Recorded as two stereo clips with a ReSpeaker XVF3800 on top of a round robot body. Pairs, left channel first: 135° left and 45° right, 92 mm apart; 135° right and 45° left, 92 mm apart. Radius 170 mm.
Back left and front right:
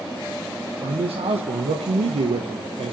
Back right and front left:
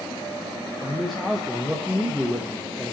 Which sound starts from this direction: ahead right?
A man speaking, at 0.8 s.